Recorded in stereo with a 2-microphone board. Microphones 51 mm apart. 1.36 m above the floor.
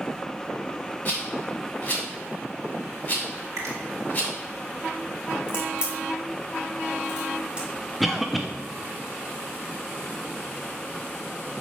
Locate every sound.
1.1 s a rattle: 30° left (ahead or behind), 2.5 m
3.6 s a finger snap: 80° right, 2 m
5.5 s a crack: 20° right (ahead or behind), 2.5 m
8.0 s a cough: centre (ahead or behind), 0.5 m